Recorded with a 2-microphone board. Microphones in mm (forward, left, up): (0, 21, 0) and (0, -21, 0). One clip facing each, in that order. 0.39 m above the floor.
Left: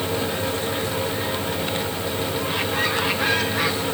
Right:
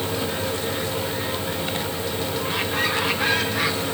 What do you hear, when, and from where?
Only background noise.